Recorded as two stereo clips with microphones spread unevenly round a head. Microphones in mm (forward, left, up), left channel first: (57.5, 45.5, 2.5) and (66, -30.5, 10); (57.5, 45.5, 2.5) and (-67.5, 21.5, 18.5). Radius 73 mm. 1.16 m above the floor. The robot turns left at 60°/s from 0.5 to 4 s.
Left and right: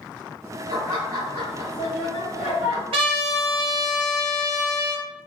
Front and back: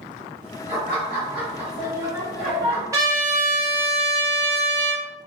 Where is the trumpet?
95° right, 0.6 m; by 5.1 s 160° right, 0.6 m.